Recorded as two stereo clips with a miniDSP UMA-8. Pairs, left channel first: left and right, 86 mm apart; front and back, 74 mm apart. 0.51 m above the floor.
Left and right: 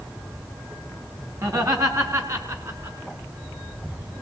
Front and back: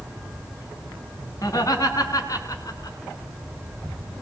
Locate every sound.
1.4 s laughter: 45° right, 4 m; by 3.0 s 40° right, 5.5 m